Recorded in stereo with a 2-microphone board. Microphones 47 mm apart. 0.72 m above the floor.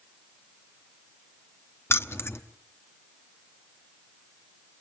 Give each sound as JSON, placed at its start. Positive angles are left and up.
{"t": 1.9, "sound": "keys jangling", "side_deg": 60, "distance_m": 0.8}